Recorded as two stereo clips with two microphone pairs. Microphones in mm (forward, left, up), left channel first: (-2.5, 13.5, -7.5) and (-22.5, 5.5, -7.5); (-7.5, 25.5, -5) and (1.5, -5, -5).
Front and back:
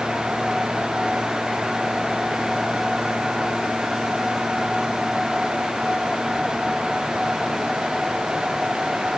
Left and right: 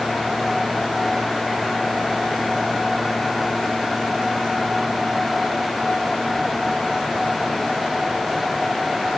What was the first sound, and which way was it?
Only background noise.